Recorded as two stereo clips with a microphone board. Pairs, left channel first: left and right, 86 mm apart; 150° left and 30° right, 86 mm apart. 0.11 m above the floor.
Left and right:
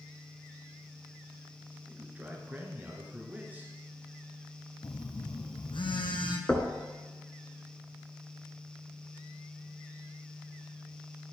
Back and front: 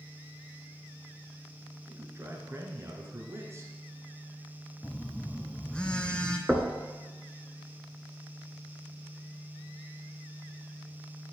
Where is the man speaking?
35° right, 1.4 m.